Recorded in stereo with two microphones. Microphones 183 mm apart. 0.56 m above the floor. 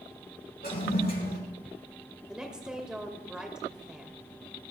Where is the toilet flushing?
60° left (ahead or behind), 5 m.